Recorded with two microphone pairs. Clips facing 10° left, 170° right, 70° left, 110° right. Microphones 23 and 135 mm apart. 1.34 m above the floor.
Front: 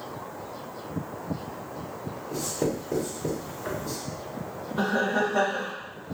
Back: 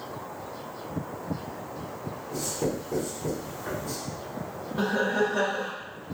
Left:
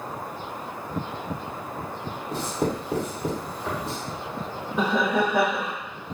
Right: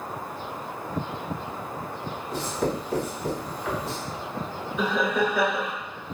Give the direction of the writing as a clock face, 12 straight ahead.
11 o'clock.